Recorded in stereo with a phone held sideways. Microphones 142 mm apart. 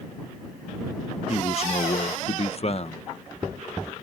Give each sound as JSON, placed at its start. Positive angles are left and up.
{"t": 1.3, "sound": "a man speaking", "side_deg": 45}